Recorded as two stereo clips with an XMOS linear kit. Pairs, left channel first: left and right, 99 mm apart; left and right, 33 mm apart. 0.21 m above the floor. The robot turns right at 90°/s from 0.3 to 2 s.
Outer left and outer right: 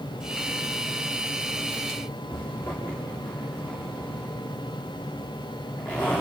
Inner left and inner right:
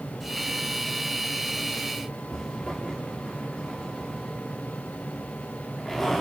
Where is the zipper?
25° left (ahead or behind), 7.5 m.